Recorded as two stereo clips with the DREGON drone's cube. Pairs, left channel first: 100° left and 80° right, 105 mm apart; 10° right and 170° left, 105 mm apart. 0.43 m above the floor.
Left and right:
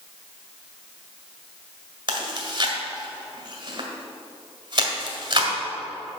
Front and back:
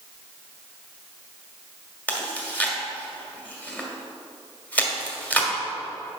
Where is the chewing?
85° right, 1.7 m.